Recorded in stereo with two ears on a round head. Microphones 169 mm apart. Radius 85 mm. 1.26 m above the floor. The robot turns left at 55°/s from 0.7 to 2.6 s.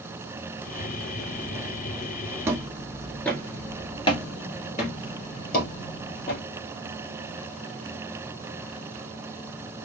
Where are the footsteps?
15° right (ahead or behind), 1.2 m; by 6.4 s 60° left (ahead or behind), 2.5 m.